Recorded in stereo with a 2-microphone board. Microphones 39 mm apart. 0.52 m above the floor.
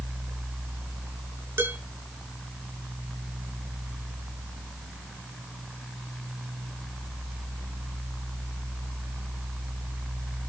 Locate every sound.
1.6 s dishes clattering: 75° right (ahead or behind), 6 m